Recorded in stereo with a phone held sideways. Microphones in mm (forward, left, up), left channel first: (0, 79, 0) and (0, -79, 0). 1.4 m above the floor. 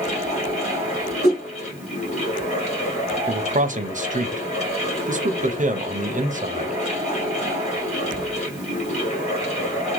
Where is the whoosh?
80° left, 1.8 m.